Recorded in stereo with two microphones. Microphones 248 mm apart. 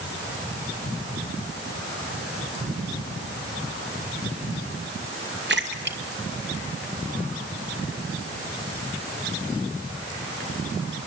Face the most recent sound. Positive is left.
turn(degrees=-45)  # may be behind; listen again after turning